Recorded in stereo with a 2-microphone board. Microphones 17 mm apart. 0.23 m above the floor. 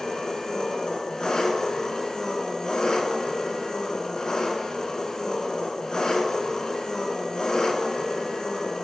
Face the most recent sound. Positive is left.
turn(degrees=45)  # may be behind; listen again after turning